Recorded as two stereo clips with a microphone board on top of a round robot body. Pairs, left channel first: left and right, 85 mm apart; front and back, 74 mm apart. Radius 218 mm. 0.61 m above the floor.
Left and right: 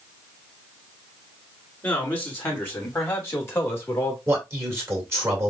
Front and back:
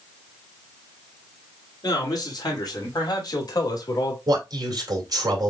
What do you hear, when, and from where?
1.8 s a man speaking: 25° left, 3.5 m; by 4.2 s 30° left, 2.0 m
4.3 s a man speaking: 150° right, 2 m